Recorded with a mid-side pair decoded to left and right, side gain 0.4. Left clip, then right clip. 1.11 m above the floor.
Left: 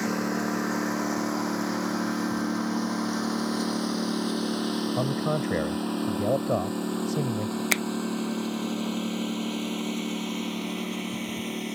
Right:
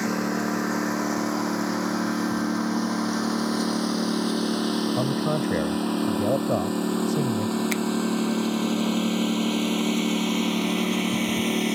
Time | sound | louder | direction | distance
0.0 | a lawn mower | right 2 dB | 15° right | ?
5.0 | a man speaking | right 2 dB | straight ahead | ?
7.7 | a finger snap | left 7 dB | 50° left | ?